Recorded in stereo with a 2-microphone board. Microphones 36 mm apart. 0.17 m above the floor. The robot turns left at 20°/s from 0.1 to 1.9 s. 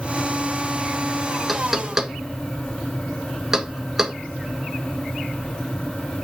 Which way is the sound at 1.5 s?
5° right (ahead or behind).